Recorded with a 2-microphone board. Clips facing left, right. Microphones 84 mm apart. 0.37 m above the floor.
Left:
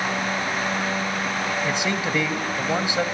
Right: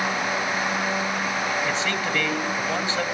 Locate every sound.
1.6 s a man speaking: 15° left (ahead or behind), 1.5 m